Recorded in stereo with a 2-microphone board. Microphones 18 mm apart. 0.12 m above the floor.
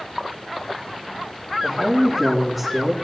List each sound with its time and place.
1.6 s a man speaking: centre (ahead or behind), 5 m; by 2.9 s 5° left (ahead or behind), 5.5 m